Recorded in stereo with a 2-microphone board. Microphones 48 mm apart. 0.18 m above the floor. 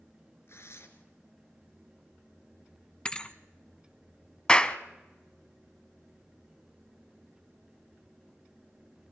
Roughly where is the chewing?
I don't hear chewing.